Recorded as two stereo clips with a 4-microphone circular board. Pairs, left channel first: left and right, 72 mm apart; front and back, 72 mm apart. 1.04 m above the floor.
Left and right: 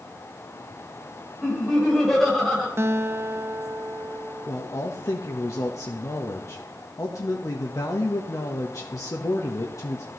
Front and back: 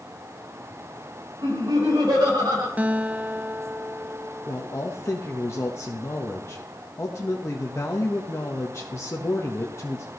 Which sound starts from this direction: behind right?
A guitar, at 2.8 s.